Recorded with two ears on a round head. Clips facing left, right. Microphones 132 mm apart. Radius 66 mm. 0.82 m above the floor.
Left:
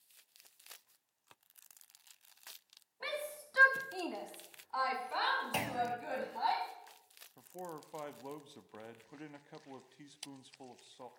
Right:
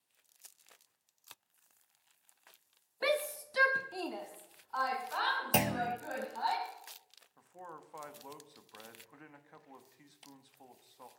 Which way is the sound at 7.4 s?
30° left (ahead or behind).